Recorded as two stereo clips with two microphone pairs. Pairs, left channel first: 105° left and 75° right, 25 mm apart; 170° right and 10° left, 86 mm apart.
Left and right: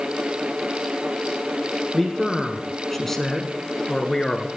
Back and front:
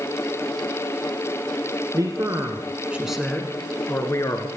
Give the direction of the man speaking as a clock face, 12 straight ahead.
12 o'clock.